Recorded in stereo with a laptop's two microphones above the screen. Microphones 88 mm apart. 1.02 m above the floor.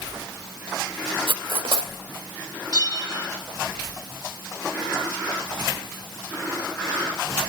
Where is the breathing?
No breathing in this recording.